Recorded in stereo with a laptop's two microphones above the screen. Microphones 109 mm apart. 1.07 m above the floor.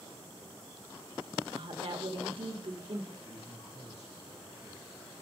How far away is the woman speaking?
About 1.4 m.